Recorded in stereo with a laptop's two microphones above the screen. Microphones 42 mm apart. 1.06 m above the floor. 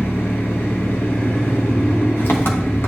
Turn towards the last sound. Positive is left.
turn(degrees=65)  # may be behind; listen again after turning